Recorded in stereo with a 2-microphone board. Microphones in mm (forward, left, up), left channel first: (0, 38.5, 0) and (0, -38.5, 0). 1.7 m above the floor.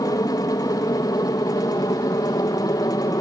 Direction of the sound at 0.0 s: 60° left (ahead or behind).